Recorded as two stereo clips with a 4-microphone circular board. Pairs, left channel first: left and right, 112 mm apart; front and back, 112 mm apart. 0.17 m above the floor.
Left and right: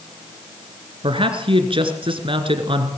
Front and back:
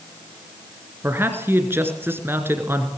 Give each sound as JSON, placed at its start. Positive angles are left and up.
{"t": 1.0, "sound": "a man speaking", "azimuth_deg": -115, "distance_m": 2.5}